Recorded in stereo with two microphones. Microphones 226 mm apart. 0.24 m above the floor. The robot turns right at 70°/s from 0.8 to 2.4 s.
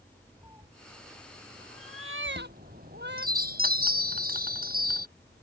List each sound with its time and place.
0.4 s a cat meowing: 15° right (ahead or behind); by 3.3 s 55° right (ahead or behind)
2.3 s a chime: 35° right (ahead or behind); by 5.1 s 45° right (ahead or behind)